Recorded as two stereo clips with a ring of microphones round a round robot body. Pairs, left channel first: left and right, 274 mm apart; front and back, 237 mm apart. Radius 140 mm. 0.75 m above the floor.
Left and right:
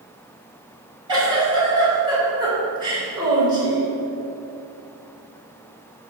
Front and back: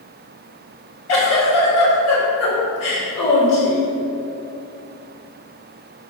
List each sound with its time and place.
1.1 s a giggle: 15° right, 3 m